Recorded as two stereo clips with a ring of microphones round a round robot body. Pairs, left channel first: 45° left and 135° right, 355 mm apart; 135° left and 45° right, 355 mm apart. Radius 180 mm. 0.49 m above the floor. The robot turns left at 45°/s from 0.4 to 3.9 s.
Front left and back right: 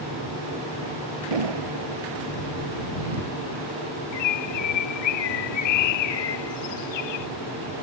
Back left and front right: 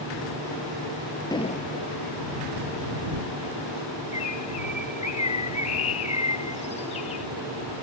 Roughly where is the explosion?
Behind right.